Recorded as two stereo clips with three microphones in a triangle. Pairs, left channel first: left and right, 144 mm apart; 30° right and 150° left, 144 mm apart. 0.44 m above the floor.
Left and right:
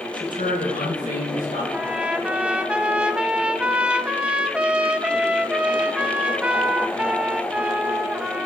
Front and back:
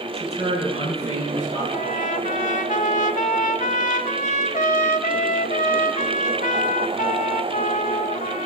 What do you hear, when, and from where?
0.1 s a man speaking: 105° left, 5 m; by 1.6 s 115° left, 5 m
1.7 s a trumpet: 10° right, 0.7 m